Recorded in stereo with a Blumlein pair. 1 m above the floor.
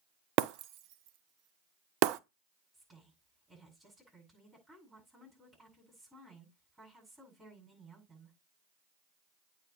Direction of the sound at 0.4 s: 40° right.